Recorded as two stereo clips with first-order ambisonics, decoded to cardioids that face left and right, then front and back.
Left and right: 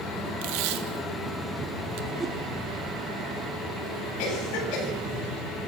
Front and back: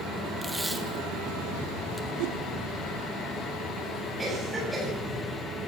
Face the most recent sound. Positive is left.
turn(degrees=100)